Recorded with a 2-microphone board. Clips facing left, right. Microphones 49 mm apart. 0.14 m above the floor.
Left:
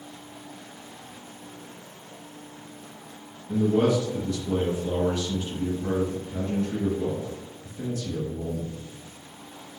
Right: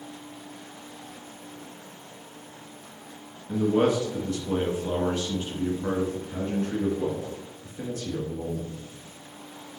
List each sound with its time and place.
3.5 s a man speaking: 35° right (ahead or behind), 1.4 m